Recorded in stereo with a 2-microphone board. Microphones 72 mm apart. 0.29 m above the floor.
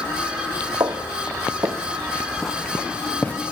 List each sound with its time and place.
0.8 s footsteps: 75° right (ahead or behind), 1.0 m; by 3.3 s 20° left (ahead or behind), 1.4 m